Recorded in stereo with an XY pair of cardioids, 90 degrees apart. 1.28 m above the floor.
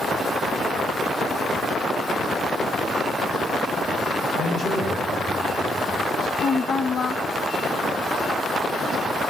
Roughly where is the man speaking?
Ahead left.